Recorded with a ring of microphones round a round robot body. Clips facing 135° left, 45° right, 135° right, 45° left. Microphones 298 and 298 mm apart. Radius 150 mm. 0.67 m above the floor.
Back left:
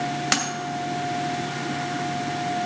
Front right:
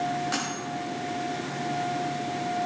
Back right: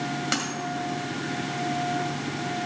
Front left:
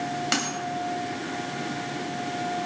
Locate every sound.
0.3 s a dropped coin: 130° left, 2.0 m